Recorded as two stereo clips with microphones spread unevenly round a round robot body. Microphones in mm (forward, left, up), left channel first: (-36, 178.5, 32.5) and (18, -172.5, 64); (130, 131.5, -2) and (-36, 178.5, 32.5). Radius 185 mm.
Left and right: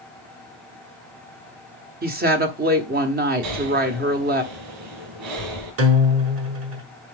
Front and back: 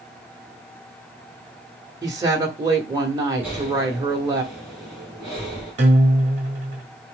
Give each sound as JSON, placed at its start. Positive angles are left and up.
{"t": 2.0, "sound": "a woman speaking", "azimuth_deg": -125, "distance_m": 1.3}
{"t": 3.4, "sound": "breathing", "azimuth_deg": -110, "distance_m": 5.0}
{"t": 5.8, "sound": "a guitar", "azimuth_deg": -130, "distance_m": 1.5}